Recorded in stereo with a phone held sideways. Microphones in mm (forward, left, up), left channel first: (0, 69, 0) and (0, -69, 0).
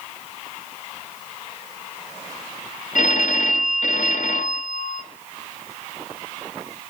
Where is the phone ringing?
65° left (ahead or behind), 0.6 m.